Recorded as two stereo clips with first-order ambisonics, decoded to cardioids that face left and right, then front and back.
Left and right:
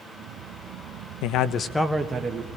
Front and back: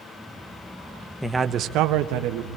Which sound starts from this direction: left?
A man speaking, at 1.2 s.